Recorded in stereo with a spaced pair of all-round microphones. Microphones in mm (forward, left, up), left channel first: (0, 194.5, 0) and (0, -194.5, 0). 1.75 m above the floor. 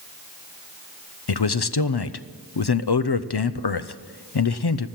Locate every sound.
1.3 s a man speaking: 65° left (ahead or behind), 0.7 m